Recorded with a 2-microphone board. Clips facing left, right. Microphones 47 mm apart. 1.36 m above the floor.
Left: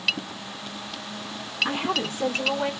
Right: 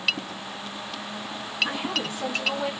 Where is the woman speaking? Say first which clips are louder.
Left 2 dB; 55° left (ahead or behind), 2.0 m; by 2.7 s 30° left (ahead or behind), 2.5 m.